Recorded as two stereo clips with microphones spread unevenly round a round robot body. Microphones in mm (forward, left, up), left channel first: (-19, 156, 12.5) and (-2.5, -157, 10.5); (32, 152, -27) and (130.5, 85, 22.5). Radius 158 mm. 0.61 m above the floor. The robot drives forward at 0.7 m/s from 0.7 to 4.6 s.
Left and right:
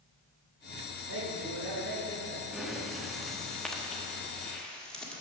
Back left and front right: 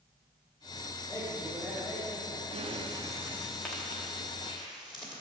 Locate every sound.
1.1 s a man speaking: 120° right, 2.5 m; by 2.4 s 140° right, 3 m
2.5 s breathing: straight ahead, 0.7 m; by 5.2 s straight behind, 1.2 m